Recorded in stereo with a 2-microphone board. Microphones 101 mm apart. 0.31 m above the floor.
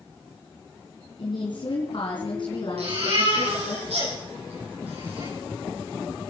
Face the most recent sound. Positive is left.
turn(degrees=-80)